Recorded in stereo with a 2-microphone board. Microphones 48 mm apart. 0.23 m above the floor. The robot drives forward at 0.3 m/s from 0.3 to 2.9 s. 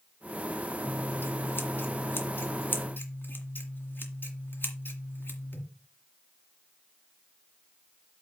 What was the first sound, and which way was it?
Scissors, 60° left (ahead or behind).